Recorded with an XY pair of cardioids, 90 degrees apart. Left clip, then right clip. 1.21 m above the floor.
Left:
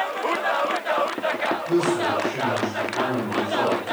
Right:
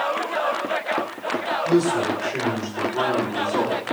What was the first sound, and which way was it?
A man speaking, 65° right.